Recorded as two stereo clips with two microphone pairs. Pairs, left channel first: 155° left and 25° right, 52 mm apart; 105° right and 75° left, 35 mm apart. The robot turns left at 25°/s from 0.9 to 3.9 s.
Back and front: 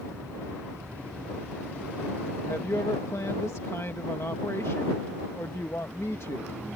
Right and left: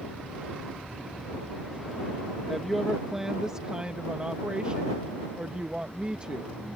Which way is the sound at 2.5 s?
165° left.